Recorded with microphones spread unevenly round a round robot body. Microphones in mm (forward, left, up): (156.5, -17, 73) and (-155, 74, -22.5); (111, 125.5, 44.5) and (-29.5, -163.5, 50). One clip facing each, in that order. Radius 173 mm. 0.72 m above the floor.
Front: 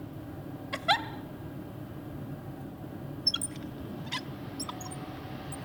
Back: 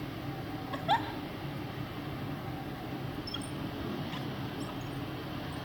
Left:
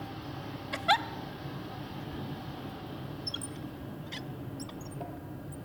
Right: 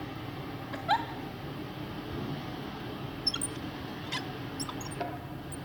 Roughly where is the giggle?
Ahead.